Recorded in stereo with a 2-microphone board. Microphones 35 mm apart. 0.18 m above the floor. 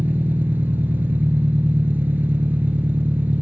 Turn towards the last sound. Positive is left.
turn(degrees=-65)  # may be behind; listen again after turning